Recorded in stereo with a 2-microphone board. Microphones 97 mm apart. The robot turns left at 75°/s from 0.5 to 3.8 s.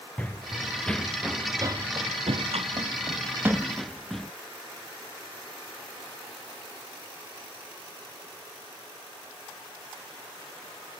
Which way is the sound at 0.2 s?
15° left (ahead or behind).